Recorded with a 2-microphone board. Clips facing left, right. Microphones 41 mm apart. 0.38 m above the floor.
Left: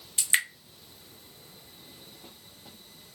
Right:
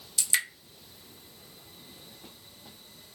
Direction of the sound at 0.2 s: 30° left (ahead or behind).